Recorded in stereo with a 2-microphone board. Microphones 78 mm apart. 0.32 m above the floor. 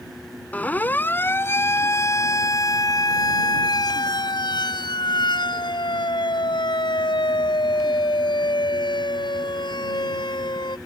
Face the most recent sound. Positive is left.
turn(degrees=70)  # may be behind; listen again after turning